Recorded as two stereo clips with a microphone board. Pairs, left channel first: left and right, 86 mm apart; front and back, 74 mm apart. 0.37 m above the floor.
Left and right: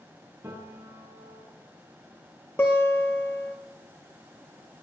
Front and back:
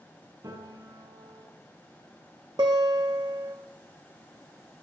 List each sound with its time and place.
0.4 s a piano: 145° right, 8.5 m
2.6 s a guitar: 155° left, 3 m